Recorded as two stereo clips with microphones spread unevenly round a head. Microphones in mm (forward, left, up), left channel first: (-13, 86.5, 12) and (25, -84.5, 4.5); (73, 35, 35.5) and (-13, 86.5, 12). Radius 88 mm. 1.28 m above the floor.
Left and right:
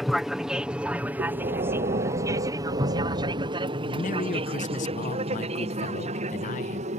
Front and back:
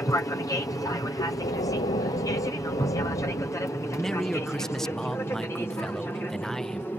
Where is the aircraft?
10° left; by 7.0 s 110° right.